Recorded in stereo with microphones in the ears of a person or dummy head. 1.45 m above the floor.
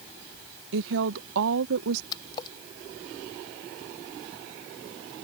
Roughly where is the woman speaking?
Right.